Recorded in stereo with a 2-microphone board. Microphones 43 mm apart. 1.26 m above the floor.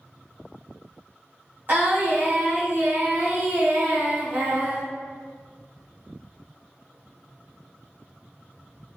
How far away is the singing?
About 1.3 m.